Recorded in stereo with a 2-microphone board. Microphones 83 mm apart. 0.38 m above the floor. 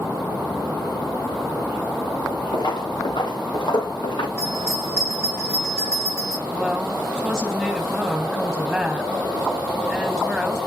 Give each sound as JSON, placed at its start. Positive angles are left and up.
{"t": 2.5, "sound": "footsteps", "side_deg": 55, "distance_m": 2.5}
{"t": 4.4, "sound": "a bell", "side_deg": 30, "distance_m": 7.5}
{"t": 6.5, "sound": "a woman speaking", "side_deg": -5, "distance_m": 3.0}